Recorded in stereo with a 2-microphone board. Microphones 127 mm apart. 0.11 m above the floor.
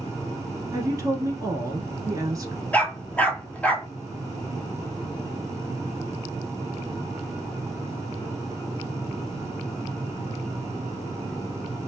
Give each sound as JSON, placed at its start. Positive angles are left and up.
{"t": 0.7, "sound": "a woman speaking", "side_deg": -30, "distance_m": 1.3}
{"t": 2.7, "sound": "a dog barking", "side_deg": 15, "distance_m": 0.6}